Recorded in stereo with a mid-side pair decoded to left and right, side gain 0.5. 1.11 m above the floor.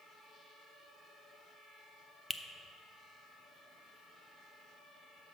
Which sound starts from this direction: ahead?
A finger snap, at 2.3 s.